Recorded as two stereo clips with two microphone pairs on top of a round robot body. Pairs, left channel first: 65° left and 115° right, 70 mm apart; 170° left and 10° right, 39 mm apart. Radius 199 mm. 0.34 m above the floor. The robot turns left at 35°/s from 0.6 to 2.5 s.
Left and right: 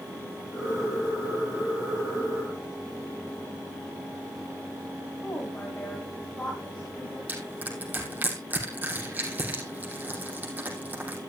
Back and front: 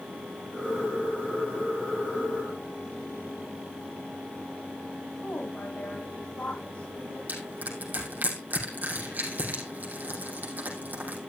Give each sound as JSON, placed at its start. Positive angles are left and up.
{"t": 5.2, "sound": "a woman speaking", "azimuth_deg": 130, "distance_m": 3.5}
{"t": 7.3, "sound": "crushing", "azimuth_deg": -50, "distance_m": 4.5}